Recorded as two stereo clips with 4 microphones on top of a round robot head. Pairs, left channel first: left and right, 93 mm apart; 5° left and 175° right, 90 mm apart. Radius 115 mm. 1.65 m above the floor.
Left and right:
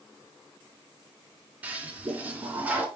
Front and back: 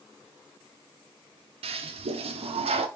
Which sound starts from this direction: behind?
A toilet flushing, at 1.6 s.